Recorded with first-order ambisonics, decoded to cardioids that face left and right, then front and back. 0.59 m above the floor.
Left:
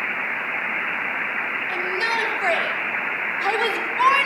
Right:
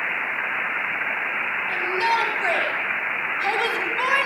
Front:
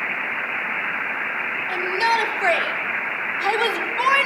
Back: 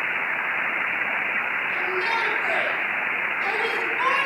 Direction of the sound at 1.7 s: 5° right.